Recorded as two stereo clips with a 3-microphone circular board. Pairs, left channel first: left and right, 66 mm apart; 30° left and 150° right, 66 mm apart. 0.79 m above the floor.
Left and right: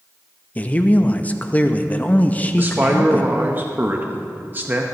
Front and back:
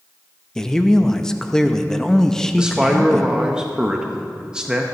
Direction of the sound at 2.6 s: 85° right.